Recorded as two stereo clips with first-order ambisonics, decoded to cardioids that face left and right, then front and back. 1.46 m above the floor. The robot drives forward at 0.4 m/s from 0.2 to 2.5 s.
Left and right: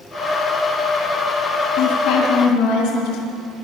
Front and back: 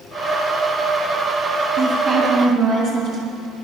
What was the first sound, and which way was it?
A woman speaking, 125° left.